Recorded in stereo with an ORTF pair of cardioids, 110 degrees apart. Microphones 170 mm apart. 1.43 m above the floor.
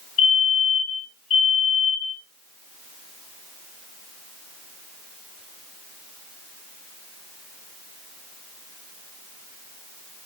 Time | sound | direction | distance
0.2 | a fire alarm | 40° left | 5 m